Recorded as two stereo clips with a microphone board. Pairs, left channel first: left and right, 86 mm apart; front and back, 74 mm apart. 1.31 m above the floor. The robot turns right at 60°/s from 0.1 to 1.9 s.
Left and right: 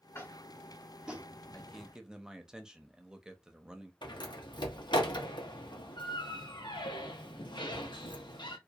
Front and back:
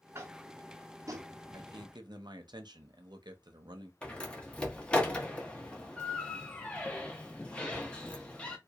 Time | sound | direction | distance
0.1 | tapping | 140° left | 0.6 m
1.5 | a man speaking | 170° left | 0.6 m
4.0 | a door slam | 75° left | 0.6 m